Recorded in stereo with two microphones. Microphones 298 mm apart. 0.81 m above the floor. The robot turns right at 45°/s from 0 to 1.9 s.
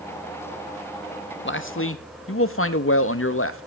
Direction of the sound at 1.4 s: 40° left (ahead or behind).